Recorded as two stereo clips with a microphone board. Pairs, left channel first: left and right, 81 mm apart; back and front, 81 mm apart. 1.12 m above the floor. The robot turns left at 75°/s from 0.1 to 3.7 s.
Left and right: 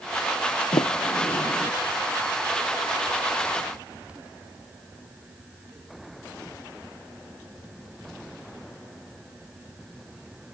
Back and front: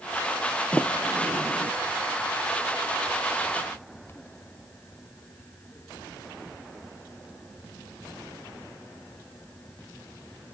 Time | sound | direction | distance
0.7 | a sliding door | 105° left | ?